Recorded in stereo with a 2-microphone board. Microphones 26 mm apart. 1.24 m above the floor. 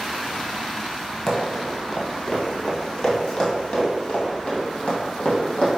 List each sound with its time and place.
1.3 s running footsteps: 15° left (ahead or behind), 1.6 m; by 5.8 s 45° left (ahead or behind), 2 m